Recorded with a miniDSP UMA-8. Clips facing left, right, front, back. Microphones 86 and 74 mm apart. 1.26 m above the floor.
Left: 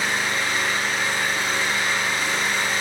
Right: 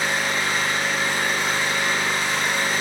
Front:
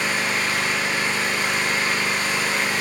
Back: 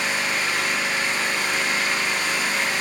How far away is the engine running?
About 1.7 m.